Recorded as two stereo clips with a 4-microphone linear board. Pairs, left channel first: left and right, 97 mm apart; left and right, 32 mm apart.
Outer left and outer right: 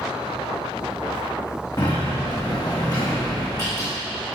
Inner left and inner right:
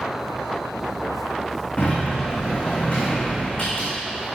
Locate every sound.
1.8 s a sliding door: 45° left (ahead or behind), 4 m